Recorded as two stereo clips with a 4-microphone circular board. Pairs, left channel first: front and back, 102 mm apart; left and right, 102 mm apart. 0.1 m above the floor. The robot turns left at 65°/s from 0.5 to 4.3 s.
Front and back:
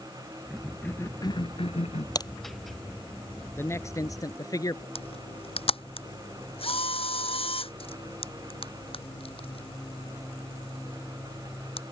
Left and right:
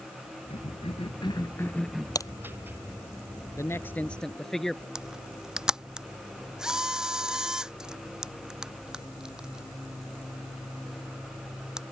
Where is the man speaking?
55° left; by 4.8 s 5° left.